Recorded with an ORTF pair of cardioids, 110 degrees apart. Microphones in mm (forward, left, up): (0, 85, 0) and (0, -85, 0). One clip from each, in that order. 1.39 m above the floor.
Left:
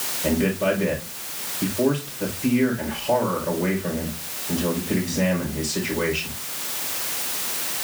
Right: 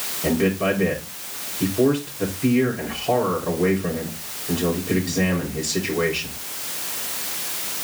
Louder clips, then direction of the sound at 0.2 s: Right 1 dB; 70° right.